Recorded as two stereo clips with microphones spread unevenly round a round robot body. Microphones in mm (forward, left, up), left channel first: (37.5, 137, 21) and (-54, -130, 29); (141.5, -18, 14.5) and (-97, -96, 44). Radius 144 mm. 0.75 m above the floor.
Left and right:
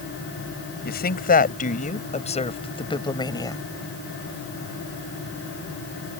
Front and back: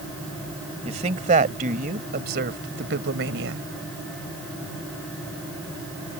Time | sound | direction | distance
0.8 | a woman speaking | 130° left | ?